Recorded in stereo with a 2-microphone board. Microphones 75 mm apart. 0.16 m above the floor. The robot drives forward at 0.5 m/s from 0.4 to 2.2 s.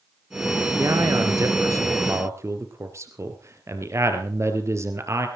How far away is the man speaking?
About 3 m.